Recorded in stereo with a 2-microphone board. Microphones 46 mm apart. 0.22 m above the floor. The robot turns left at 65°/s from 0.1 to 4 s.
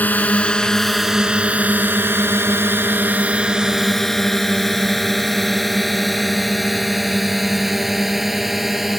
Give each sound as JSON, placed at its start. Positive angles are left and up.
{"t": 0.0, "sound": "a drone", "side_deg": 40}